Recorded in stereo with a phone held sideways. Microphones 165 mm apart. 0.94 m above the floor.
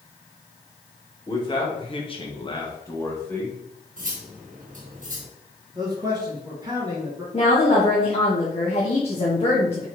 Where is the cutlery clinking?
55° right (ahead or behind), 1.0 m.